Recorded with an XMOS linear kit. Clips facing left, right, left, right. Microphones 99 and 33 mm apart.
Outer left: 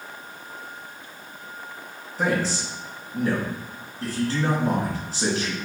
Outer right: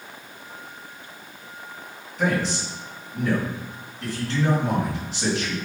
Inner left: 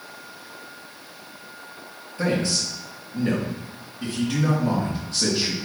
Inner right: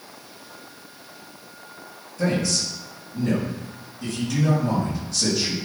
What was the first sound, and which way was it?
A man speaking, 40° left (ahead or behind).